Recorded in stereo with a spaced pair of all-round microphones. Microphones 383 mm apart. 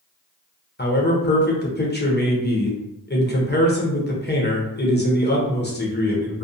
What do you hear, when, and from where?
0.8 s a man speaking: 25° left (ahead or behind), 0.7 m